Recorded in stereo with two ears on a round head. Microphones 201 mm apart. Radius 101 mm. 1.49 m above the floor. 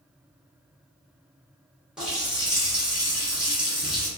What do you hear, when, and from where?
2.0 s a running tap: 5° right (ahead or behind), 0.9 m